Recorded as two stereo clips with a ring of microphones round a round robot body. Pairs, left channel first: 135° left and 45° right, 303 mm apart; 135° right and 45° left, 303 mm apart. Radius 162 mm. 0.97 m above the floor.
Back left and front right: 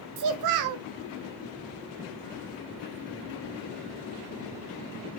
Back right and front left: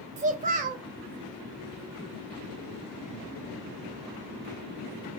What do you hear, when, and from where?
0.2 s a child speaking: 20° right, 0.5 m